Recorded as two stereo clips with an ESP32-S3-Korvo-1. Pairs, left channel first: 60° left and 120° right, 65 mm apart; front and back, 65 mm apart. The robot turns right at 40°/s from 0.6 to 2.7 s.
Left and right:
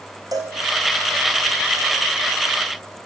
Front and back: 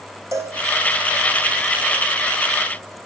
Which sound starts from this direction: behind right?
A cowbell, at 0.3 s.